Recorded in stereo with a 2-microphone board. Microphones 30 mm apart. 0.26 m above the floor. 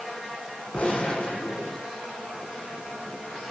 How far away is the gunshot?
About 5 m.